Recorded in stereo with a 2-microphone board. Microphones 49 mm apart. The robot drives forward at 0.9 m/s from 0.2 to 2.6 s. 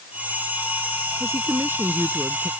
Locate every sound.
1.2 s a woman speaking: 55° right (ahead or behind); by 2.5 s 50° right (ahead or behind)